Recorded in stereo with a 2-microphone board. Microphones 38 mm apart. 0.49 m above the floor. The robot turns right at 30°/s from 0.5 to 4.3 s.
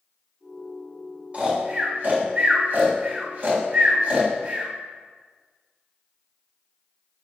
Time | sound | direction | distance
1.3 | snoring | 35° right (ahead or behind) | 2.5 m